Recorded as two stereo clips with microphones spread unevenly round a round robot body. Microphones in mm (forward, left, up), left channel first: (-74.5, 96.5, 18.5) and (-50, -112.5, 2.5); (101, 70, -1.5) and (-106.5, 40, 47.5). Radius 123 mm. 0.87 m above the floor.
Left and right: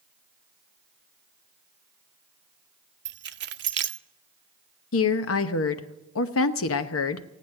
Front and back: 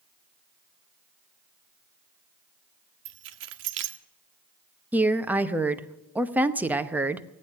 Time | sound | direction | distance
3.0 | keys jangling | 125° right | 0.9 m
4.9 | a woman speaking | 100° left | 1.0 m